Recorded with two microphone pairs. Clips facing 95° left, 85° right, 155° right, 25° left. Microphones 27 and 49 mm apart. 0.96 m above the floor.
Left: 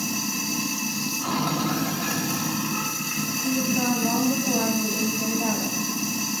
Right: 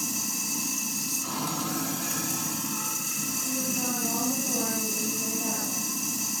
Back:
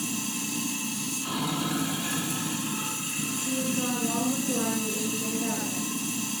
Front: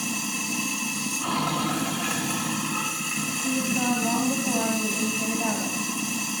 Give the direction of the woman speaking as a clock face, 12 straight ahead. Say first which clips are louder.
Left 8 dB, front 4 dB; 11 o'clock.